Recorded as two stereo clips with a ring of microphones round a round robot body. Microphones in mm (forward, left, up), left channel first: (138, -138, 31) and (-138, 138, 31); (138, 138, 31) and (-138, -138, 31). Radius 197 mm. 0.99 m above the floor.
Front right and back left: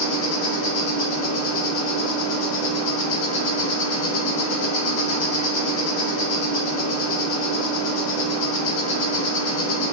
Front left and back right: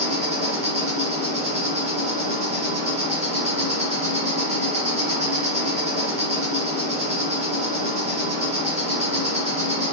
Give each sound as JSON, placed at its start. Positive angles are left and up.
{"t": 0.0, "sound": "an insect", "azimuth_deg": -65, "distance_m": 2.5}